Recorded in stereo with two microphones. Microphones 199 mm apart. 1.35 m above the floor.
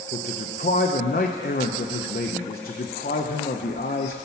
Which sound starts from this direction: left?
A man speaking, at 0.1 s.